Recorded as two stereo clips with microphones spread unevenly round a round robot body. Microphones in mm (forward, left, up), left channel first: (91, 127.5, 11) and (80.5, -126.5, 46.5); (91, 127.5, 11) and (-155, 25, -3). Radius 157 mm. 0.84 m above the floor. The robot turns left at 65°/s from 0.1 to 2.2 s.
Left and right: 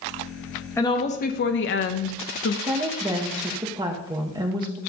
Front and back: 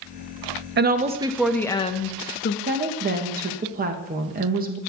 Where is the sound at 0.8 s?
160° left, 0.6 m; by 2.6 s 70° left, 0.6 m.